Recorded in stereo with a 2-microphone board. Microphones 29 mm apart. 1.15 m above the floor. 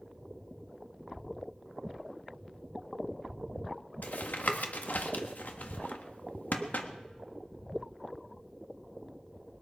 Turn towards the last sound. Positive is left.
turn(degrees=85)